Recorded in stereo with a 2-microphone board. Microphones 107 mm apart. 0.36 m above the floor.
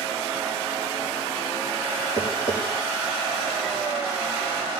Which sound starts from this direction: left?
Tapping, at 2.2 s.